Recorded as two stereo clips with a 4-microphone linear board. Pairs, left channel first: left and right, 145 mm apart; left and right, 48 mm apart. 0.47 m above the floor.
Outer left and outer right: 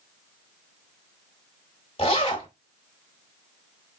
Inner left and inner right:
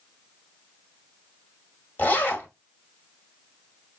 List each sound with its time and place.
2.0 s a zipper: 45° left (ahead or behind), 1.2 m